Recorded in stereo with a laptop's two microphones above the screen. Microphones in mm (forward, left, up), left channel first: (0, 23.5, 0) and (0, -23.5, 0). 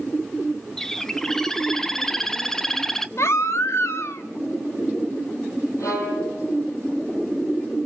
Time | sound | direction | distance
0.8 | a bird | 10° left (ahead or behind) | 0.8 m
3.2 | a baby crying | 60° left (ahead or behind) | 1.0 m
5.8 | a violin | 85° left | 8 m